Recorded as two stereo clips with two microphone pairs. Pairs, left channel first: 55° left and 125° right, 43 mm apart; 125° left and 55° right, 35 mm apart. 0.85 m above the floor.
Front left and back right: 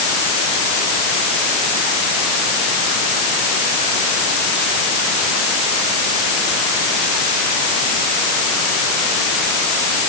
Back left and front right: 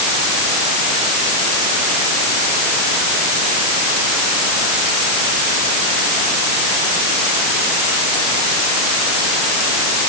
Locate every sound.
Only background noise.